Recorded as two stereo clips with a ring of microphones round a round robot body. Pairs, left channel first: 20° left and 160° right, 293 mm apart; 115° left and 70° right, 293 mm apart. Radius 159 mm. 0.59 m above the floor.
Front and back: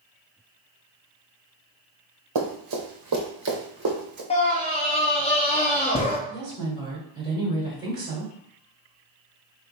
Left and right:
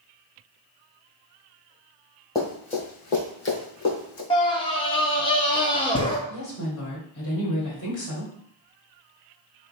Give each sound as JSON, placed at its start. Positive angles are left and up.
{"t": 2.4, "sound": "running footsteps", "azimuth_deg": -170, "distance_m": 1.1}
{"t": 4.3, "sound": "a scream", "azimuth_deg": 65, "distance_m": 0.6}
{"t": 6.3, "sound": "a woman speaking", "azimuth_deg": 145, "distance_m": 1.8}